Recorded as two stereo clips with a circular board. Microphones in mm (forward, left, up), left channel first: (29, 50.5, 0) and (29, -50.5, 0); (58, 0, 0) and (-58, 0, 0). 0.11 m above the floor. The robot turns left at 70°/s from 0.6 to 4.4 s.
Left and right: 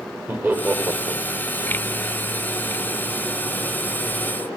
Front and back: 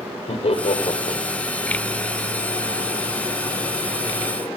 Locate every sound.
0.3 s laughter: 20° right, 3 m; by 1.2 s 65° right, 3 m